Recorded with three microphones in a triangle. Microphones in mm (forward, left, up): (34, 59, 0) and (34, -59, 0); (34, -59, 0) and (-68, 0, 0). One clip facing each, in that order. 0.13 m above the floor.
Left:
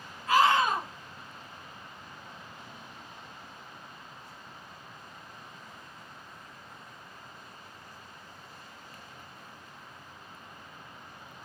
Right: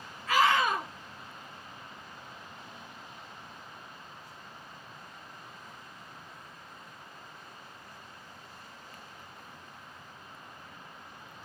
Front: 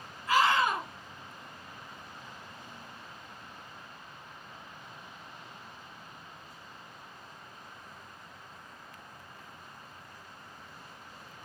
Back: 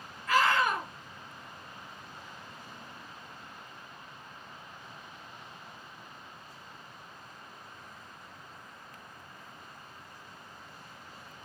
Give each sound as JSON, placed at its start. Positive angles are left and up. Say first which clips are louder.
{"t": 0.3, "sound": "a scream", "louder": "left 2 dB, front 1 dB", "azimuth_deg": 40, "distance_m": 2.5}